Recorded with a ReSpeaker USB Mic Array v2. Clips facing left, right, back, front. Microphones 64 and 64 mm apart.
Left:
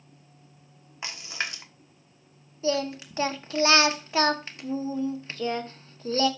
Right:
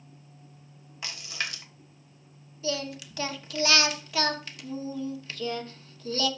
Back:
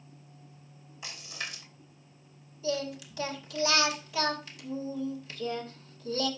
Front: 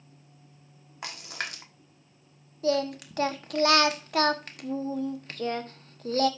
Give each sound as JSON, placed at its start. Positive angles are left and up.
{"t": 1.0, "sound": "a splash", "azimuth_deg": 25, "distance_m": 1.2}
{"t": 2.6, "sound": "singing", "azimuth_deg": 30, "distance_m": 1.0}